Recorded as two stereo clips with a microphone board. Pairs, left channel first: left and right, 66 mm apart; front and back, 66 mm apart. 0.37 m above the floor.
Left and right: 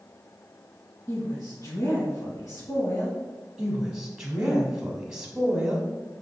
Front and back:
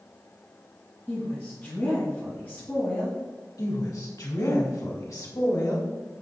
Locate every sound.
1.1 s a woman speaking: 55° left, 3 m
3.6 s a woman speaking: 10° right, 2.5 m